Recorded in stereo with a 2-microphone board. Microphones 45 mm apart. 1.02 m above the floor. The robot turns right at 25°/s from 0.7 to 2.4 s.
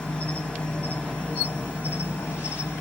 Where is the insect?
25° left, 2 m; by 2.8 s 65° left, 2 m.